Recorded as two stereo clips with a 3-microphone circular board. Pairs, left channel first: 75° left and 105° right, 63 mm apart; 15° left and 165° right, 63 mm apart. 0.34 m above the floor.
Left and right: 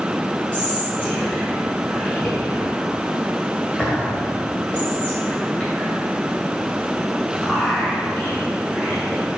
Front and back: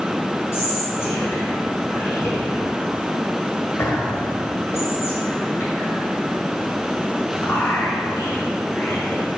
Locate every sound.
0.5 s whispering: 10° left, 1.8 m